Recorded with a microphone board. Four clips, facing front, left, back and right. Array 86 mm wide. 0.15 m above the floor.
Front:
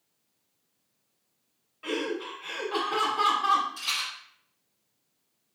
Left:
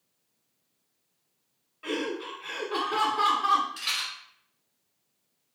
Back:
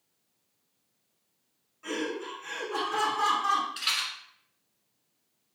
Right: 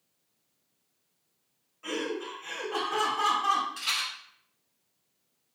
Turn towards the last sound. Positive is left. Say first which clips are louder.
# right 1 dB, back 1 dB
turn(degrees=175)